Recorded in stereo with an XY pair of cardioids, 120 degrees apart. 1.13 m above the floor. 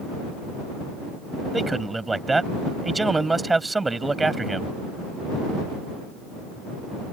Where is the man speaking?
15° right.